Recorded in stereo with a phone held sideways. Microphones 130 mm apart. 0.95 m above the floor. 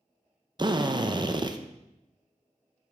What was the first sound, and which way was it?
A drill, 35° right (ahead or behind).